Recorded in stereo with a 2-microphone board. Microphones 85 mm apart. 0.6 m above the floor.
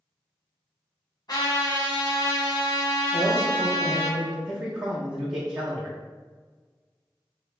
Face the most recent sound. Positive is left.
turn(degrees=-10)  # may be behind; listen again after turning